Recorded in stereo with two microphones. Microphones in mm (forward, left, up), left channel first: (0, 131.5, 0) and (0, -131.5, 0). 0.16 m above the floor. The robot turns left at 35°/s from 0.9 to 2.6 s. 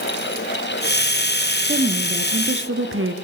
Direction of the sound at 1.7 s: 35° right.